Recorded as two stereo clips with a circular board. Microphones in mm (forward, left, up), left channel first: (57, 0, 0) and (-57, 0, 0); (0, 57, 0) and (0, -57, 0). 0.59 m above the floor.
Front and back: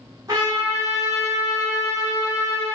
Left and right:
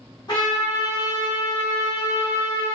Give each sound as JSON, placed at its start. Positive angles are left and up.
{"t": 0.3, "sound": "a trumpet", "azimuth_deg": 125, "distance_m": 1.4}